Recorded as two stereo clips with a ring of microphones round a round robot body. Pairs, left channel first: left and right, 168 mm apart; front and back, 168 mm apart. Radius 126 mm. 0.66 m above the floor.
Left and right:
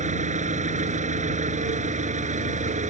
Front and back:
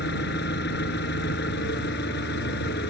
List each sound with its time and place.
0.0 s an engine running: 45° right